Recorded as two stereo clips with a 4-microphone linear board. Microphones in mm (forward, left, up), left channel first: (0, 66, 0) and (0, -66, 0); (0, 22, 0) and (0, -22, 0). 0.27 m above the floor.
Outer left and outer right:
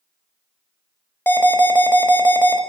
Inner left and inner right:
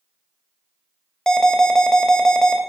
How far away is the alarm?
About 1.0 m.